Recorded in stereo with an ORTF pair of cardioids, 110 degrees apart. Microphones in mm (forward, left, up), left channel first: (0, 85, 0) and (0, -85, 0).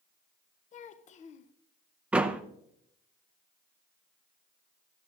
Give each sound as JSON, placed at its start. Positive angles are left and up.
{"t": 0.7, "sound": "a child speaking", "azimuth_deg": 45, "distance_m": 0.6}
{"t": 2.1, "sound": "a door slam", "azimuth_deg": -5, "distance_m": 0.7}